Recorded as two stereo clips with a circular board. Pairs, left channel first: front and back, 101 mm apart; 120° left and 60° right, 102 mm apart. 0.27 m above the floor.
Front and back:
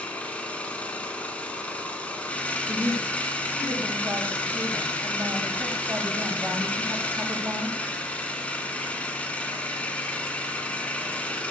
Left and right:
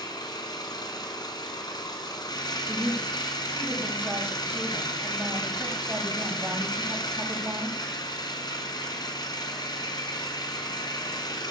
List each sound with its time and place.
0.0 s an engine running: 75° left, 1.1 m
2.7 s a woman speaking: 120° right, 1.9 m